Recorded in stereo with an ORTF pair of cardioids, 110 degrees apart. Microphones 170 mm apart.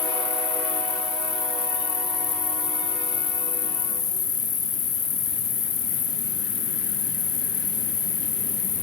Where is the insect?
45° left, 3.5 m.